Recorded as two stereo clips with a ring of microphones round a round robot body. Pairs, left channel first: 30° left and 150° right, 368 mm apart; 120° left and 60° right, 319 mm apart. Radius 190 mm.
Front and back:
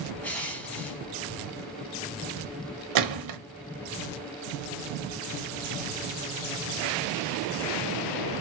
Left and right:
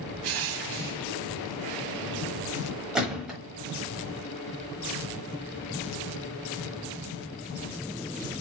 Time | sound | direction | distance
0.2 | crushing | 55° right | 0.7 m
3.0 | a gunshot | 145° right | 1.1 m